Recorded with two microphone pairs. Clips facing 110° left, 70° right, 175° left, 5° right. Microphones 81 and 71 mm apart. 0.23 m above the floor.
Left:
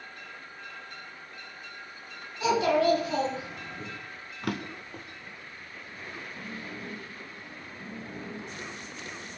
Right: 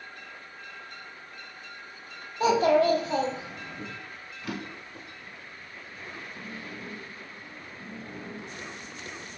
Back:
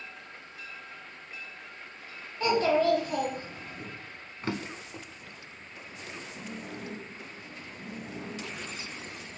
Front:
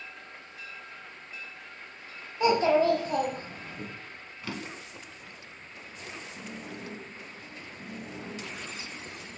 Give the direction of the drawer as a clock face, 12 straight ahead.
8 o'clock.